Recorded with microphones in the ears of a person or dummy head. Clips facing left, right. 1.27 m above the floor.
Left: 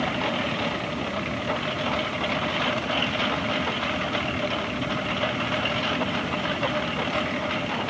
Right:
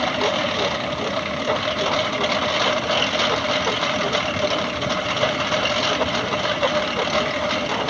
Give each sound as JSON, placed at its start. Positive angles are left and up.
{"t": 0.0, "sound": "a lawn mower", "side_deg": -60}